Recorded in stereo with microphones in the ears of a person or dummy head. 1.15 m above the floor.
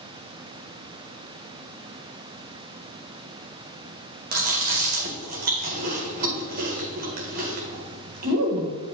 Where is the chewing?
50° right (ahead or behind), 1.5 m.